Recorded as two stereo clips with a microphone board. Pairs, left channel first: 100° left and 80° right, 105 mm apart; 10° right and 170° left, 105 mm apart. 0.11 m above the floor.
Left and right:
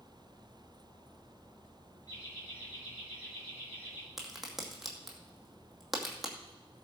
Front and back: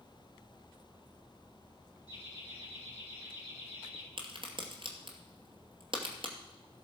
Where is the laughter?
155° left, 6 m; by 4.1 s 160° left, 5 m.